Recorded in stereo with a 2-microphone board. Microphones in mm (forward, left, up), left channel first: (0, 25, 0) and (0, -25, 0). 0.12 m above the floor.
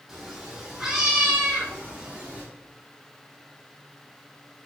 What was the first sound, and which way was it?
A cat meowing, 10° right (ahead or behind).